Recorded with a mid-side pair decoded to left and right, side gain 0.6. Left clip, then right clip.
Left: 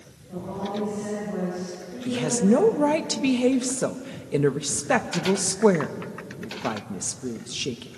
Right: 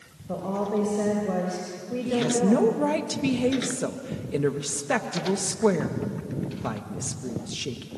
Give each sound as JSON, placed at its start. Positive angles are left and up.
{"t": 0.3, "sound": "a woman speaking", "azimuth_deg": -65, "distance_m": 5.5}
{"t": 2.1, "sound": "a woman speaking", "azimuth_deg": 20, "distance_m": 1.9}